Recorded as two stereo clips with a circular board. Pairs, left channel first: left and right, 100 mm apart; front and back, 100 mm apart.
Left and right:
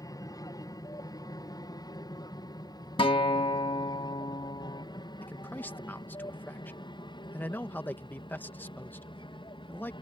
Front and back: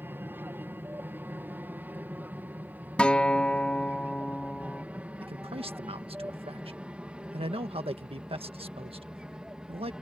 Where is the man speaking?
160° left.